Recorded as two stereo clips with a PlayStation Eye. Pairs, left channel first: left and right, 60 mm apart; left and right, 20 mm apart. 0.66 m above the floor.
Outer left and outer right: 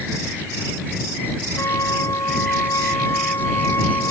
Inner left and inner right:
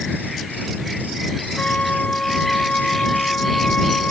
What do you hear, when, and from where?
1.6 s a flute: 55° left (ahead or behind)